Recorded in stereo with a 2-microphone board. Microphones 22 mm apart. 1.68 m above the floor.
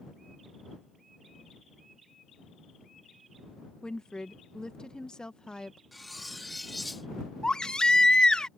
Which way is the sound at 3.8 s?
30° left (ahead or behind).